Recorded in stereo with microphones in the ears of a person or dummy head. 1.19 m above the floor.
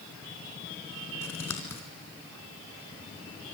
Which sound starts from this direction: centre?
Scissors, at 1.2 s.